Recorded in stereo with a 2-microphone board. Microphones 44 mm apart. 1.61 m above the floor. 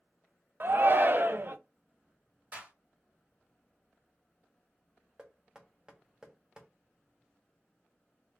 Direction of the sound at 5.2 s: 15° right (ahead or behind).